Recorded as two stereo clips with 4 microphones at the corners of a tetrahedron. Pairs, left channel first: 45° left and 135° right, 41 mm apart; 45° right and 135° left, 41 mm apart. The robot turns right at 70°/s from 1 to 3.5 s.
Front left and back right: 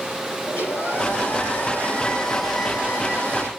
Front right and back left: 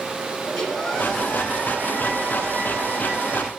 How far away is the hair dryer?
About 5.5 m.